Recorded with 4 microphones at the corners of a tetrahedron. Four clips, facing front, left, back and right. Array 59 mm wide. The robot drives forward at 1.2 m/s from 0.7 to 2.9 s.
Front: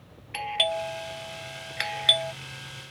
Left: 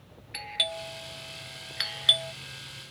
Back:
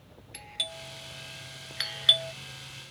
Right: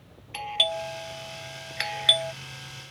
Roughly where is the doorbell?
Ahead.